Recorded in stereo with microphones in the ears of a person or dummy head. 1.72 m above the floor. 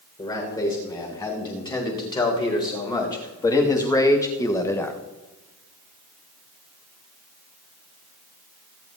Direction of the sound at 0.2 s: 30° left (ahead or behind).